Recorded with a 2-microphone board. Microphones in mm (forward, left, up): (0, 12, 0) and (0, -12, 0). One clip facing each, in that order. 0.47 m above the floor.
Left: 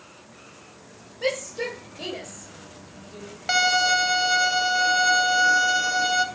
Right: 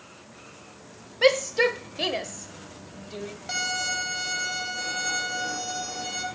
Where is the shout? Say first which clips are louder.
Right 7 dB; 55° right (ahead or behind), 2.0 m.